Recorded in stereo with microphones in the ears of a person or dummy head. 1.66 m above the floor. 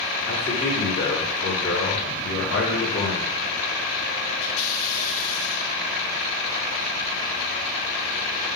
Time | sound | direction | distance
0.2 | a man speaking | 60° left (ahead or behind) | 4 m